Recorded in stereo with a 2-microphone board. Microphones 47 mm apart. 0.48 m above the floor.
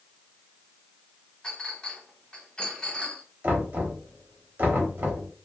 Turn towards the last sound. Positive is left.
turn(degrees=-45)  # may be behind; listen again after turning